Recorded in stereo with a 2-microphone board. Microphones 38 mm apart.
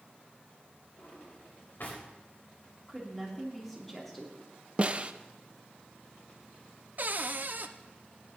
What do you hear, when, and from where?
1.0 s a drawer: 60° left (ahead or behind), 4 m
2.9 s a woman speaking: 5° left (ahead or behind), 3.5 m
4.8 s a snare drum: 35° right (ahead or behind), 0.5 m
7.0 s a cupboard door: 50° right (ahead or behind), 0.6 m